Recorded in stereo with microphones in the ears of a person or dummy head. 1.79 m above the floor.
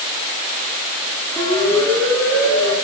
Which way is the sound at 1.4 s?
15° left (ahead or behind).